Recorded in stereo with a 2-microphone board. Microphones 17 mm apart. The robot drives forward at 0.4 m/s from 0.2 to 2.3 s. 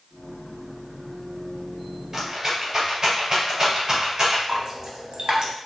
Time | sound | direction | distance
2.1 | a rattle | 35° right (ahead or behind) | 1.8 m
4.5 | dripping | 50° right (ahead or behind) | 0.9 m